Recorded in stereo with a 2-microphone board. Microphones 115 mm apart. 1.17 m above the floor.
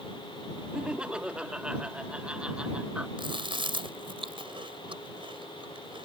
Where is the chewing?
45° right (ahead or behind).